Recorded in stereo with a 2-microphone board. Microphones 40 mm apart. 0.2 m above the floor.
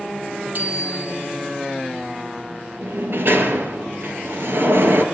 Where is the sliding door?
60° right (ahead or behind), 3.5 m.